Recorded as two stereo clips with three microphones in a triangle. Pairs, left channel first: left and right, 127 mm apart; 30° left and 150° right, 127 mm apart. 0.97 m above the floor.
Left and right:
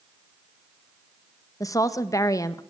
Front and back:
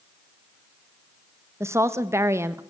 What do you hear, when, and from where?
1.6 s a woman speaking: 150° left, 1.0 m